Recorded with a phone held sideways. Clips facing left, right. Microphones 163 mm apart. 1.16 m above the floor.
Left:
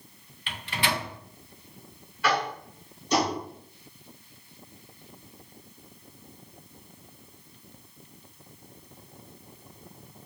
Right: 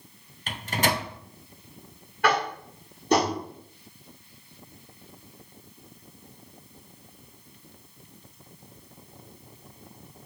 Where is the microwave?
45° right (ahead or behind), 0.7 m.